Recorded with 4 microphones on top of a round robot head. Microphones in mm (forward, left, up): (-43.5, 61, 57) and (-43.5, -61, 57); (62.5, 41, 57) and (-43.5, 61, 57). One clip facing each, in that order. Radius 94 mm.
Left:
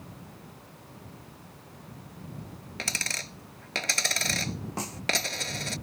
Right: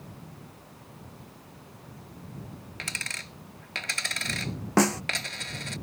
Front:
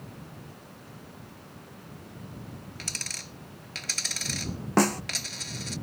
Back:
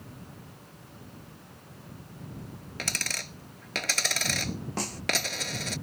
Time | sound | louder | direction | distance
2.8 | a dropped coin | left 6 dB, back 5 dB | 140° left | ?
4.8 | a snare drum | right 14 dB, front 16 dB | 55° right | ?